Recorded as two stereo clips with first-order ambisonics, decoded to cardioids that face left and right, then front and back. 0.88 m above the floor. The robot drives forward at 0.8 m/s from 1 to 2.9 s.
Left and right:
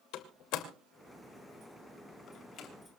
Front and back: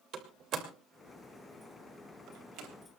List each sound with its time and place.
0.1 s a door slam: 125° left, 2.5 m; by 2.7 s 145° left, 3 m